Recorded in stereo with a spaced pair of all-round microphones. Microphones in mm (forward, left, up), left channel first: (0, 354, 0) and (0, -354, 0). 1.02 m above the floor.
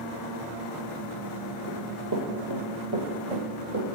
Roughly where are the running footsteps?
Centre.